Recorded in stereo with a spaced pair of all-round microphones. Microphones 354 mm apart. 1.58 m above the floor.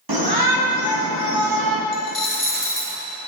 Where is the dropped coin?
30° left (ahead or behind), 1.6 m.